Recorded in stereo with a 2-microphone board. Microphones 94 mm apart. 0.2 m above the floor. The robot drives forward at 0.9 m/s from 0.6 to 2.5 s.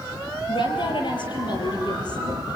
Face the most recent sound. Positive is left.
turn(degrees=45)  # may be behind; listen again after turning